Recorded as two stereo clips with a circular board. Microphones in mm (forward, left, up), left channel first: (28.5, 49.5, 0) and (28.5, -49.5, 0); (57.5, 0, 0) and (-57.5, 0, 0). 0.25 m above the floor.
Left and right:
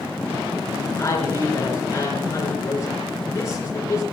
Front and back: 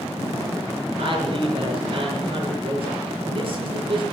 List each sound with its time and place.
1.0 s a man speaking: 150° left, 4.5 m